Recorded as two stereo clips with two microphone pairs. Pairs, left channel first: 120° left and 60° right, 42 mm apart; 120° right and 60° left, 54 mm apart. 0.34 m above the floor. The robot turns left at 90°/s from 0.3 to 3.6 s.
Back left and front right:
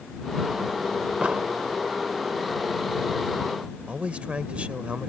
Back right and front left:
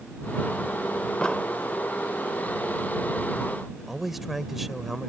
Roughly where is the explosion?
Ahead right.